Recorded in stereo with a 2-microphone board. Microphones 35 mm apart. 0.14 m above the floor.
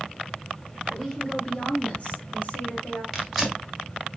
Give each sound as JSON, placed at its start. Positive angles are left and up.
{"t": 0.9, "sound": "a woman speaking", "side_deg": 10, "distance_m": 2.0}
{"t": 3.1, "sound": "tearing paper", "side_deg": 0, "distance_m": 1.6}